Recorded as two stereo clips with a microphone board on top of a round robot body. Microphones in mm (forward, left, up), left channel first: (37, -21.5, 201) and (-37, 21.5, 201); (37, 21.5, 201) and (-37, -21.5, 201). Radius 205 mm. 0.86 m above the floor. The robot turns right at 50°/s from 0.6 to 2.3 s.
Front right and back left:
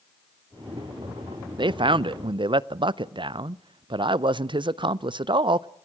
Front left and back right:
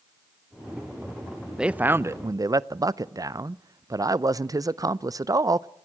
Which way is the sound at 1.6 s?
130° left.